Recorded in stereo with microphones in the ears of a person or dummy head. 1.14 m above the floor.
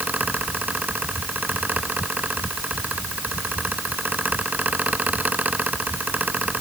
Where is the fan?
10° right (ahead or behind).